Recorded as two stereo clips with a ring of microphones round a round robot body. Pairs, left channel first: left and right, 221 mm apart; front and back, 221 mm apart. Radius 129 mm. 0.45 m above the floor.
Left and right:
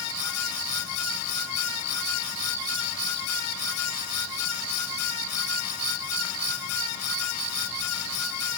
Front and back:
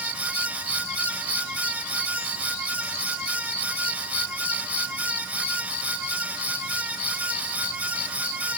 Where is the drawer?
I don't hear a drawer.